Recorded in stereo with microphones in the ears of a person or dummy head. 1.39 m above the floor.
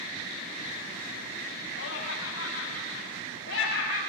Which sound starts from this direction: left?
Laughter, at 1.8 s.